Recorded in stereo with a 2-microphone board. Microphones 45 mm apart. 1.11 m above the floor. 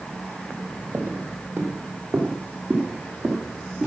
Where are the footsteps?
45° right (ahead or behind), 1.7 m; by 3.9 s 15° right (ahead or behind), 3.5 m.